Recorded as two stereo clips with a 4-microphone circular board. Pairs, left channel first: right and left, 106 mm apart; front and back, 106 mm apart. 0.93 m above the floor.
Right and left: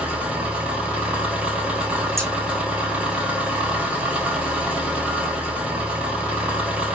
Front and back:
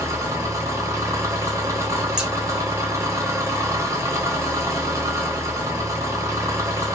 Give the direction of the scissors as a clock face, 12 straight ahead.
8 o'clock.